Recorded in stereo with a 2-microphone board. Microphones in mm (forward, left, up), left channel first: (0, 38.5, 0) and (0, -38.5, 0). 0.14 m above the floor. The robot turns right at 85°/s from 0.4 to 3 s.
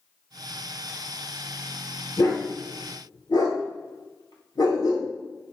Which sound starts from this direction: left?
A dog barking, at 2.2 s.